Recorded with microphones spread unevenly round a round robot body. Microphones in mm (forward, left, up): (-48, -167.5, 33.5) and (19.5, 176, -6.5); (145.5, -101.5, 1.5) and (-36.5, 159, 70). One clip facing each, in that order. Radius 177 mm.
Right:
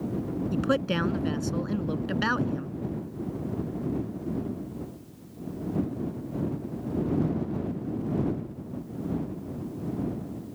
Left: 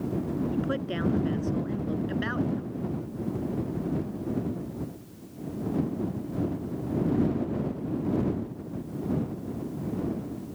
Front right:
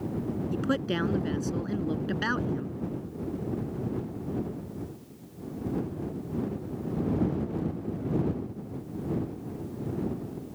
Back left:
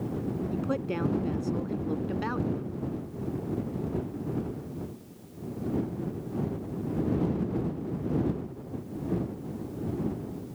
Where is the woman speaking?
120° right.